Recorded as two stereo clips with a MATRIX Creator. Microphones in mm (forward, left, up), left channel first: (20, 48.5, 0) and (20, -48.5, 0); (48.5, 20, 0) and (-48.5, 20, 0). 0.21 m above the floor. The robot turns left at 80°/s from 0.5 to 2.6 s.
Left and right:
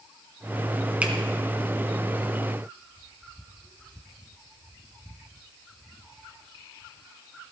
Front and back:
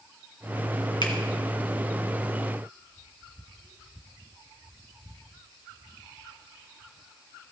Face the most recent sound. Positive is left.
turn(degrees=-145)